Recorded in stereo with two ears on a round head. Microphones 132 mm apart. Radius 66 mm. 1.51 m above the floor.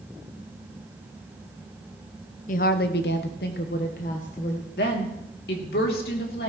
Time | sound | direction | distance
2.5 | a woman speaking | 60° left (ahead or behind) | 0.8 m
4.8 | a woman speaking | 80° left | 2.5 m